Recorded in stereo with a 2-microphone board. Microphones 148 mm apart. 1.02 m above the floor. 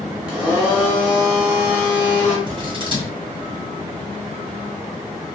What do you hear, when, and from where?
0.3 s a blender: 5° right (ahead or behind), 1.0 m
2.5 s scissors: 35° right (ahead or behind), 1.0 m